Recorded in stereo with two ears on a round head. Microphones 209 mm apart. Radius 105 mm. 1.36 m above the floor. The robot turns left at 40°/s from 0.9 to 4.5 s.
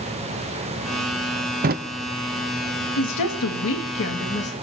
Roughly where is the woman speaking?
Left.